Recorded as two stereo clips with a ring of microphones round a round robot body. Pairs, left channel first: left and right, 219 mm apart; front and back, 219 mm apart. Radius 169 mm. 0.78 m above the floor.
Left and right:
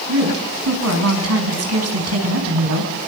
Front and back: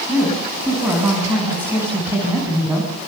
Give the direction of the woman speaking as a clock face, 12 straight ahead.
3 o'clock.